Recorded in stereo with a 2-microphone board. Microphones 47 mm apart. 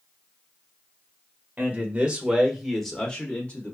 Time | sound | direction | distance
1.6 | a man speaking | 35° right (ahead or behind) | 1.0 m